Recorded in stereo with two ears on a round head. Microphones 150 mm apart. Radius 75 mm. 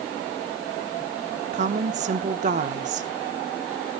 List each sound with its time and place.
1.5 s a woman speaking: 45° right (ahead or behind), 1.0 m